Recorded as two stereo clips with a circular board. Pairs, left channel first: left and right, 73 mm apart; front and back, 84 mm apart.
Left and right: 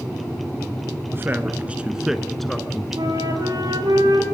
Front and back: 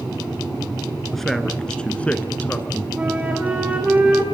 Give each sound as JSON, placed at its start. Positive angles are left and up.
{"t": 1.1, "sound": "a man speaking", "azimuth_deg": -85, "distance_m": 1.6}
{"t": 3.0, "sound": "a flute", "azimuth_deg": -105, "distance_m": 5.0}